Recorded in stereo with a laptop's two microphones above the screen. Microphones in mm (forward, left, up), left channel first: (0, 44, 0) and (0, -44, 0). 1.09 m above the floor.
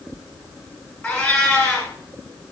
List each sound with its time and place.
1.0 s a cat meowing: 20° left (ahead or behind), 2 m